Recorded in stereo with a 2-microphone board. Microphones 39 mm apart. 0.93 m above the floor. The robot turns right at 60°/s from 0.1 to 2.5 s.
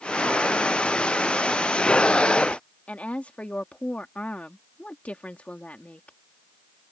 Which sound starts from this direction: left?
A woman speaking, at 2.9 s.